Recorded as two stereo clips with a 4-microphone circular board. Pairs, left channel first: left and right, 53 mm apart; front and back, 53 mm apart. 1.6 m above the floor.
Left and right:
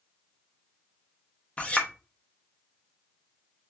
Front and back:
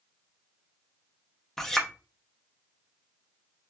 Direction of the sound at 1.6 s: 70° left.